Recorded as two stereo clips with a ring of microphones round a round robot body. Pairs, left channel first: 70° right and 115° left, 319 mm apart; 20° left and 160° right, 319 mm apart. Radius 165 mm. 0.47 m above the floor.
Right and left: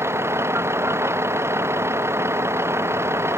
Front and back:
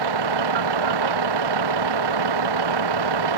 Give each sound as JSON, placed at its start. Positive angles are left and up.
{"t": 0.0, "sound": "a vehicle", "azimuth_deg": -165}